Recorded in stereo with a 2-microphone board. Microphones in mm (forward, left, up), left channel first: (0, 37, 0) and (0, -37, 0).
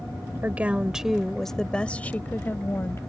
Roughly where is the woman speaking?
Right.